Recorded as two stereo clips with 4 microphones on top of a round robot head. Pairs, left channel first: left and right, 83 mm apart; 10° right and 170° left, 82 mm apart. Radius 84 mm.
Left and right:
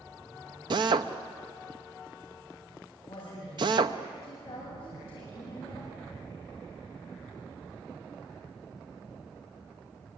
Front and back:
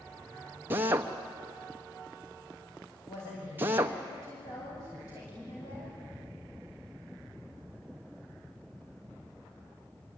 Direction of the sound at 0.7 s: 120° right.